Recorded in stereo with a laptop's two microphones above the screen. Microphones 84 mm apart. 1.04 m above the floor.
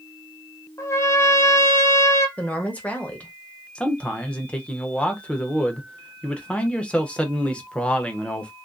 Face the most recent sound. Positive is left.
turn(degrees=15)  # may be behind; listen again after turning